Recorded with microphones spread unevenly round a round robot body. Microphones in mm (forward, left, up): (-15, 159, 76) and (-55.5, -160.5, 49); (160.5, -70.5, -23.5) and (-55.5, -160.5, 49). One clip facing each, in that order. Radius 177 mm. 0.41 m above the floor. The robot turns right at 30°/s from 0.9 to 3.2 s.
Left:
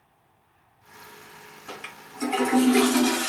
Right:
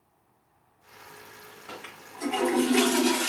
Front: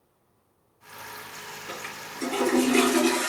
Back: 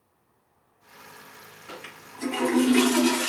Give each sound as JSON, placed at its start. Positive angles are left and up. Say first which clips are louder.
{"t": 1.7, "sound": "a toilet flushing", "louder": "left 3 dB, front 2 dB", "azimuth_deg": 125, "distance_m": 1.6}